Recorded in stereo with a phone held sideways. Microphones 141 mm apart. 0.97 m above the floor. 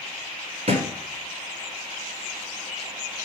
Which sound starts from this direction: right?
A thud, at 0.7 s.